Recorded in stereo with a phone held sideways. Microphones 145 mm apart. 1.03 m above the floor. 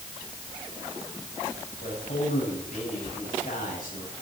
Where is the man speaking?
70° left (ahead or behind), 7.5 m.